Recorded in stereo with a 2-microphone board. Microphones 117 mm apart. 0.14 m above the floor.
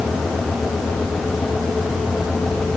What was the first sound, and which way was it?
Only background noise.